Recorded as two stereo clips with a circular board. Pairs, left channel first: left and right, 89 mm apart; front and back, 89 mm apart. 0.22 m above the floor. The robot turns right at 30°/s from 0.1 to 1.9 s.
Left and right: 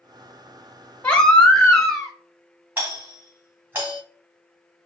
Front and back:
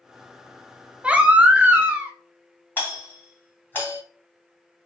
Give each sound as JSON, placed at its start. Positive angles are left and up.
{"t": 1.0, "sound": "a baby crying", "azimuth_deg": 135, "distance_m": 1.0}
{"t": 2.8, "sound": "a doorbell", "azimuth_deg": -45, "distance_m": 2.5}